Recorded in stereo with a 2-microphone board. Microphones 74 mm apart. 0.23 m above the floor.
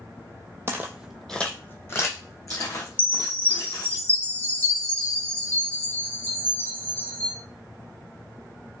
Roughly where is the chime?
Left.